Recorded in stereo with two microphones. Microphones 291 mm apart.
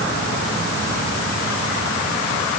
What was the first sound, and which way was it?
Only background noise.